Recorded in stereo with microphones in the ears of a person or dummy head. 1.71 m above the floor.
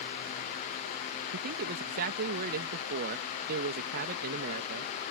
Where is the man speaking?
50° right (ahead or behind).